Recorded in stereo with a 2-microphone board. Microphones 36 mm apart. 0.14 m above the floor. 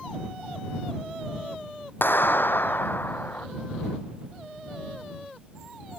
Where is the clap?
80° left.